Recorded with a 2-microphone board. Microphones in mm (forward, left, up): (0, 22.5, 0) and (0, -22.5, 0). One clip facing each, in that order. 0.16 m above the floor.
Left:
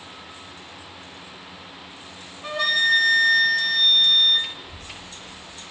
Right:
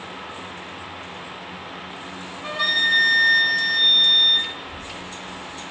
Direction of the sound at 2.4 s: 5° right (ahead or behind).